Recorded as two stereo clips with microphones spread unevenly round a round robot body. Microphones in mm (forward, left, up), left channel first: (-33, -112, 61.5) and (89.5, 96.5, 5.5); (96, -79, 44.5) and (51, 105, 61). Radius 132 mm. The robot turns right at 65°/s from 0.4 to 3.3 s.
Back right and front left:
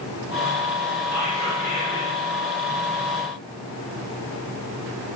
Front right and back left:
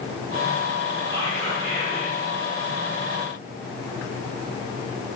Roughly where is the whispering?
Behind left.